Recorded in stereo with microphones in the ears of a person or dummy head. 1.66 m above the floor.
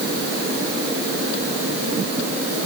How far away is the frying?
No frying in this recording.